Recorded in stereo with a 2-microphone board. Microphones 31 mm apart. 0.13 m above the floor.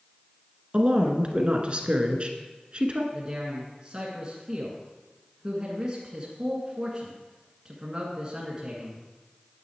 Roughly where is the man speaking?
Right.